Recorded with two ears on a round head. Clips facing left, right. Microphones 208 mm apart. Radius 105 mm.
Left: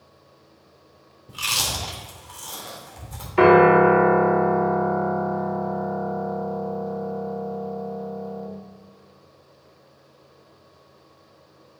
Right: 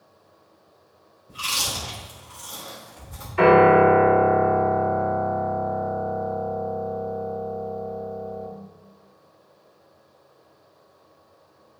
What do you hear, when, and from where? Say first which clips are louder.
1.3 s chewing: left 1 dB; 65° left (ahead or behind), 3.5 m
3.4 s a piano: left 1 dB; 65° left (ahead or behind), 2.5 m